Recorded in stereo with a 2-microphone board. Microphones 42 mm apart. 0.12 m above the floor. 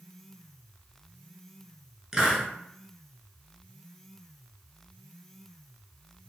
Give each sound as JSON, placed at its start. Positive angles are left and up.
{"t": 2.1, "sound": "a hiss", "side_deg": -15, "distance_m": 0.9}